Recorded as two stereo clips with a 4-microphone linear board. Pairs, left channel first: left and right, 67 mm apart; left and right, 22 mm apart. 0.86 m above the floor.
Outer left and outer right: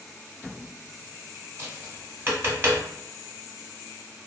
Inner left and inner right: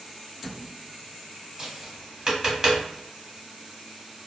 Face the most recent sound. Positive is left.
turn(degrees=-35)  # may be behind; listen again after turning